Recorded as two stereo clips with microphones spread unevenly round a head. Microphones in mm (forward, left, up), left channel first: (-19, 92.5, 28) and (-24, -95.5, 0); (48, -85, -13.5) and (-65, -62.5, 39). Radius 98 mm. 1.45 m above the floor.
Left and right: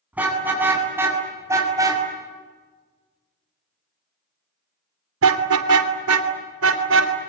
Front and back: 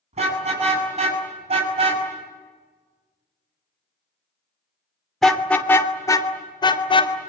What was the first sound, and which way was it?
A car horn, 175° right.